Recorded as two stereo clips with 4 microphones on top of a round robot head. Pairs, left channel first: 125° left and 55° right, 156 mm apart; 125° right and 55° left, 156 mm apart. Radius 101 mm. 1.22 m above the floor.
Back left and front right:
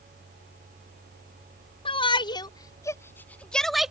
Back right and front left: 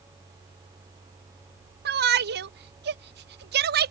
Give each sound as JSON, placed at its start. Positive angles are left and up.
{"t": 1.9, "sound": "a shout", "azimuth_deg": 70}